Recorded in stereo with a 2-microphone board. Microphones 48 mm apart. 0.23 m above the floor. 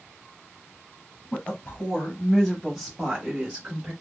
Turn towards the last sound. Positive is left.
turn(degrees=-25)  # may be behind; listen again after turning